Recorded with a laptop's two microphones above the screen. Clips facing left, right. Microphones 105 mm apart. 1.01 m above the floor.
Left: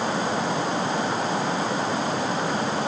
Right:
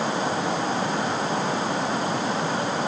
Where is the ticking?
I don't hear ticking.